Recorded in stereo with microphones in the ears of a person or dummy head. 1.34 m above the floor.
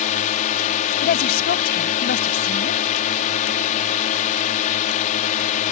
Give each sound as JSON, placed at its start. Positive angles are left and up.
{"t": 0.0, "sound": "a drone", "side_deg": 45}
{"t": 1.0, "sound": "a woman speaking", "side_deg": 55}